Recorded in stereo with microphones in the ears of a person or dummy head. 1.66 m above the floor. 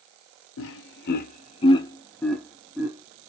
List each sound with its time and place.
0.6 s laughter: 70° left (ahead or behind), 1.0 m; by 3.3 s 15° right (ahead or behind), 1.4 m